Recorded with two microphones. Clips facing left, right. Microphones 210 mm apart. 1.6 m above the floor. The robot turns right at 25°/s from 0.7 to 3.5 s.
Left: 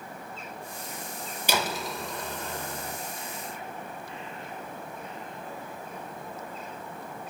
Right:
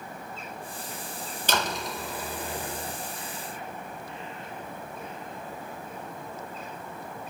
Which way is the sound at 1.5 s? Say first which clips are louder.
Even; 170° left.